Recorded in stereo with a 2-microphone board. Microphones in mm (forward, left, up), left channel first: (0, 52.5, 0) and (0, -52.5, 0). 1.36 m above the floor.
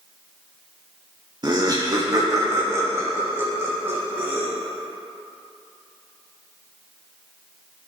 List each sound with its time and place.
1.4 s laughter: 45° right (ahead or behind), 0.7 m; by 4.5 s 20° right (ahead or behind), 2.5 m